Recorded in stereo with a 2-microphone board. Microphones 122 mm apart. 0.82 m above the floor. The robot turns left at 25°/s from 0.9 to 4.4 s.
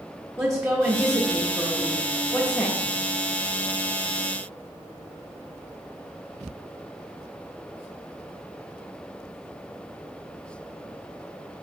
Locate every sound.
0.4 s a woman speaking: 150° right, 1.1 m; by 2.8 s 165° left, 1.1 m